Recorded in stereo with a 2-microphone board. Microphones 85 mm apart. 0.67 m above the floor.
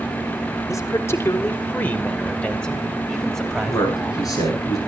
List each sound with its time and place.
0.7 s a man speaking: 40° left (ahead or behind), 1.7 m; by 4.2 s centre (ahead or behind), 4 m
3.7 s a man speaking: 45° left (ahead or behind), 8.5 m